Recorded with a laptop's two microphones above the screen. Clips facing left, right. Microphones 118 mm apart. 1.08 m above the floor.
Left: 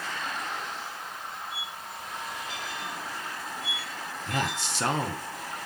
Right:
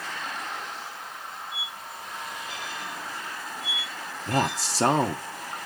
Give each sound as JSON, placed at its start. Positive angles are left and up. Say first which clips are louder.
{"t": 1.5, "sound": "a squeak", "louder": "even", "side_deg": 80, "distance_m": 4.5}
{"t": 4.3, "sound": "a man speaking", "louder": "right 5 dB", "side_deg": -35, "distance_m": 0.8}